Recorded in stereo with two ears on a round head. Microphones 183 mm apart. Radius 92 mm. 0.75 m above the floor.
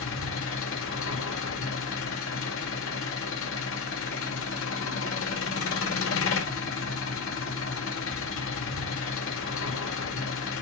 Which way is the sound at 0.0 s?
75° left (ahead or behind).